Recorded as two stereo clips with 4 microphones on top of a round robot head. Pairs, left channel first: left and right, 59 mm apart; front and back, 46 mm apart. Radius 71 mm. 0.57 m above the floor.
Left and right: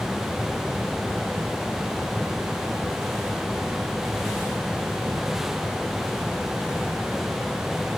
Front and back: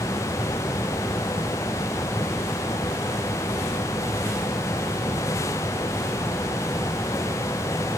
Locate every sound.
Only background noise.